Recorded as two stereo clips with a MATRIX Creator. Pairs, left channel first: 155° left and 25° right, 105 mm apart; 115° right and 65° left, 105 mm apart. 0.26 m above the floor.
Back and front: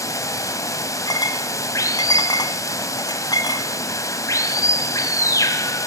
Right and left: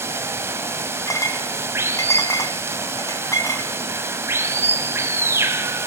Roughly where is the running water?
Behind left.